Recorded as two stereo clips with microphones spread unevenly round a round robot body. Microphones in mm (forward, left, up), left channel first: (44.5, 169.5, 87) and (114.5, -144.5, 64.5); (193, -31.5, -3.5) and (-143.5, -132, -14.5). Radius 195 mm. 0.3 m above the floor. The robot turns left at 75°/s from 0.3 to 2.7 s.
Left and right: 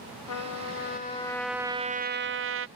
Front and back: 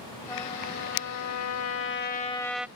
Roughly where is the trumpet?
Left.